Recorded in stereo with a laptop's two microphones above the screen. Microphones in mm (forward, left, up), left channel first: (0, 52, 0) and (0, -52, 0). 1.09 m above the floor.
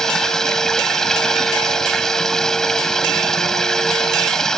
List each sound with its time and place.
0.0 s running water: 5° left (ahead or behind)